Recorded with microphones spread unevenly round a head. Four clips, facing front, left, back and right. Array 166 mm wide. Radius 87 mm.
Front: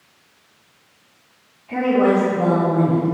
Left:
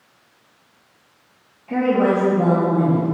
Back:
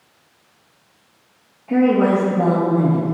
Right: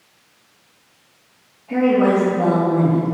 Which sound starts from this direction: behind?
A woman speaking, at 1.7 s.